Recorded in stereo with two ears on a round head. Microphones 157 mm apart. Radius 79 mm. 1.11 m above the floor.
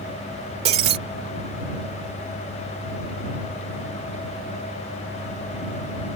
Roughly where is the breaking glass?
Right.